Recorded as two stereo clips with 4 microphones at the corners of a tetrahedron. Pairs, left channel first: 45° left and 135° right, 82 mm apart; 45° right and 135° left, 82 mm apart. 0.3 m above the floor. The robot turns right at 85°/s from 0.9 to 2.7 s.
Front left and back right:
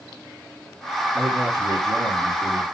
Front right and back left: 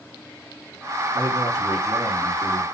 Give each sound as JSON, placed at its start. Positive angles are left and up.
{"t": 1.1, "sound": "a man speaking", "azimuth_deg": 145, "distance_m": 3.5}